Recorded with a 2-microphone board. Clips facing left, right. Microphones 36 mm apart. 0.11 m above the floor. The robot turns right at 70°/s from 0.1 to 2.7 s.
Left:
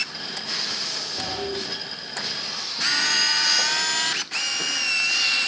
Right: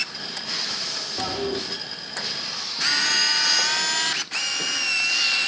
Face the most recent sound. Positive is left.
turn(degrees=-55)